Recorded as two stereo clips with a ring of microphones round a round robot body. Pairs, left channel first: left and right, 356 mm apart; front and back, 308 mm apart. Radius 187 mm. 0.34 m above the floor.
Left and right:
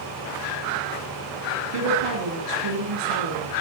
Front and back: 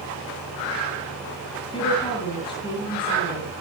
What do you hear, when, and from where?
1.7 s a woman speaking: 75° right, 7 m